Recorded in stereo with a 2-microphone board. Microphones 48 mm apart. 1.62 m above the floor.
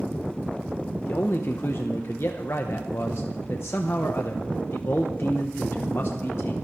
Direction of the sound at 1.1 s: 65° left (ahead or behind).